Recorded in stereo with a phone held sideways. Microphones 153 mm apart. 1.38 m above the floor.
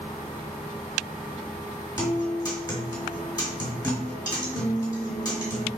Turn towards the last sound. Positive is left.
turn(degrees=30)  # may be behind; listen again after turning